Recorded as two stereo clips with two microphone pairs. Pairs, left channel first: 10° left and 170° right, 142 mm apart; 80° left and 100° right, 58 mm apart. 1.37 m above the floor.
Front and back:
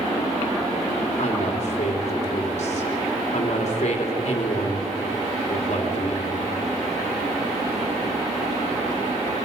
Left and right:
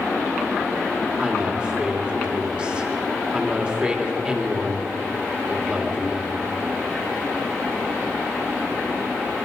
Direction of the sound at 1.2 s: 25° right.